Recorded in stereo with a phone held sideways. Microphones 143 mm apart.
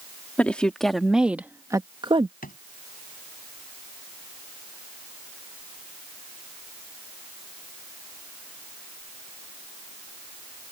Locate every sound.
0.4 s a woman speaking: 10° left (ahead or behind); by 2.3 s 45° right (ahead or behind)
2.4 s a drawer: 85° left